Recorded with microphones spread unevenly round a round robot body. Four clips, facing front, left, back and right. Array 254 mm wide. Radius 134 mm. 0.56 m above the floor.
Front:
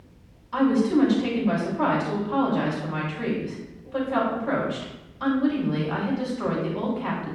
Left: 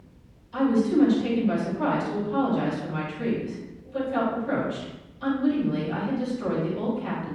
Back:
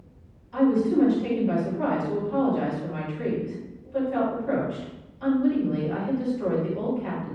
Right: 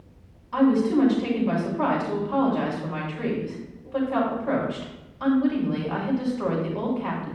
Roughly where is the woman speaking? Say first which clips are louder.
Right 2 dB, even; ahead right.